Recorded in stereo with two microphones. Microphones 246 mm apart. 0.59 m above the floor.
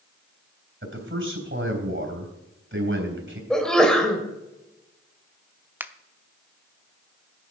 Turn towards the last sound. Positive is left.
turn(degrees=-10)  # may be behind; listen again after turning